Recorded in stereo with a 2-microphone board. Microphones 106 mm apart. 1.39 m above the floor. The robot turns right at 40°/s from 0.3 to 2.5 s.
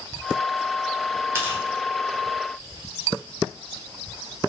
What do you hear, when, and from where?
1.4 s tearing paper: 25° right (ahead or behind), 0.8 m; by 1.6 s 10° right (ahead or behind), 0.8 m